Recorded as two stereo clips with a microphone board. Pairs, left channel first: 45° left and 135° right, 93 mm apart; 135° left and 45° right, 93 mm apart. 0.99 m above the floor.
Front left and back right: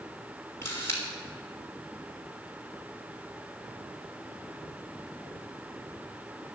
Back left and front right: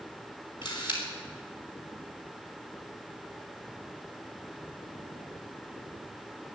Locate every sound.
0.6 s a camera shutter: 105° left, 3.5 m